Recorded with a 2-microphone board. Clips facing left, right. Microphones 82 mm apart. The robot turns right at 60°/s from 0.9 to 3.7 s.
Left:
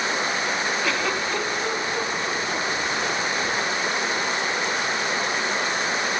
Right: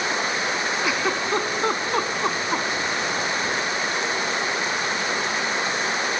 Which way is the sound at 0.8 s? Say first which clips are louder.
Right 1 dB; 15° right (ahead or behind).